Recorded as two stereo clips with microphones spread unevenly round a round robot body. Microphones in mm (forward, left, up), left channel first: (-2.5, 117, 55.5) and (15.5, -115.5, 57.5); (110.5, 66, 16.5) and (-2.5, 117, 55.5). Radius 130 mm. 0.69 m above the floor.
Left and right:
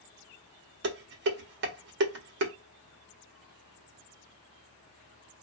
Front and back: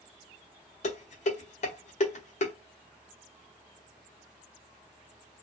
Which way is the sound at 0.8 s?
45° right.